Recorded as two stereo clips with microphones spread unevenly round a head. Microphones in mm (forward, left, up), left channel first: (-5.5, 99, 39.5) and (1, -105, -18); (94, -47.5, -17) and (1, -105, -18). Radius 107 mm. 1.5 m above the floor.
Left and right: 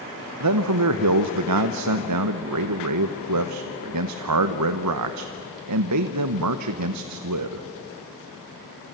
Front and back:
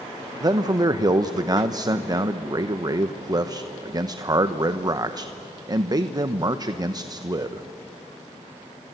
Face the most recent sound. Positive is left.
turn(degrees=-95)